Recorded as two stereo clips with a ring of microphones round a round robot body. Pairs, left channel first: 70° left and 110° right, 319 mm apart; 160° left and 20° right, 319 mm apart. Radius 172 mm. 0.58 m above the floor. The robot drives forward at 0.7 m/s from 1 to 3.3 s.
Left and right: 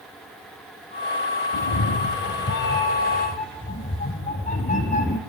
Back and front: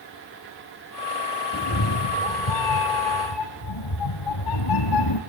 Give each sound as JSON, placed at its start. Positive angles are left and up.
{"t": 1.5, "sound": "a cat meowing", "azimuth_deg": 105, "distance_m": 1.7}